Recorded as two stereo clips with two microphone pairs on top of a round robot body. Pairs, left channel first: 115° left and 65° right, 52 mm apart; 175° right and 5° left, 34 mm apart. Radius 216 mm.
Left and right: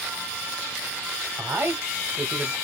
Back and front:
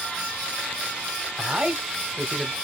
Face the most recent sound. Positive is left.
turn(degrees=-85)